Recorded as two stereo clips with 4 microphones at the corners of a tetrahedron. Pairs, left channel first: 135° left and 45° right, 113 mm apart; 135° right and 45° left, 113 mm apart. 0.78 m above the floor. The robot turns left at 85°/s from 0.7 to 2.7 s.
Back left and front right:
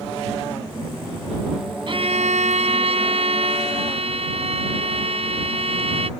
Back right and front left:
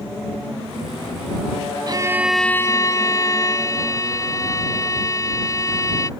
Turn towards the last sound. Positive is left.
turn(degrees=-75)